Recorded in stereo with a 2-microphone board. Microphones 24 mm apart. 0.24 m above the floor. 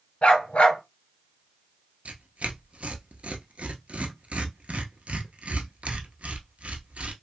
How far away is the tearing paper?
About 0.7 m.